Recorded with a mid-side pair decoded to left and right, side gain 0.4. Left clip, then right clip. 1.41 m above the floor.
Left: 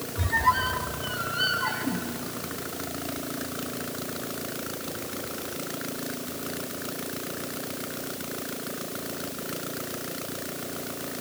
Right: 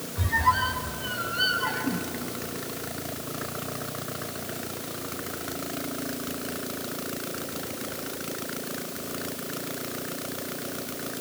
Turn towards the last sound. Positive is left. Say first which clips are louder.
# even
turn(degrees=5)